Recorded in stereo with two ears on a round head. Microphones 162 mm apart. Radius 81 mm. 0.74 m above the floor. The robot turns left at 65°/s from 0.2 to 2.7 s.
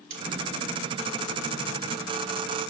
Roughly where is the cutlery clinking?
Right.